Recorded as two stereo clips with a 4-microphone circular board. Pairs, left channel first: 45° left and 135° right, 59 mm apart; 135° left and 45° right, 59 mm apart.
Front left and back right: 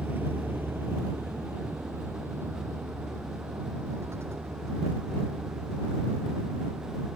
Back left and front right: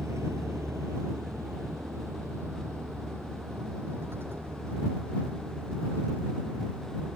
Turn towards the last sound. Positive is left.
turn(degrees=-95)